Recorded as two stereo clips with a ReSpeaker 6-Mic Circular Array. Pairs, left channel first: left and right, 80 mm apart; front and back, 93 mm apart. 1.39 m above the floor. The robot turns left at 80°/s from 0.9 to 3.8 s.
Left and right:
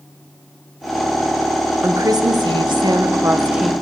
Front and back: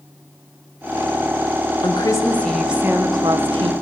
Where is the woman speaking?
30° right, 1.1 m; by 3.7 s straight behind, 1.1 m.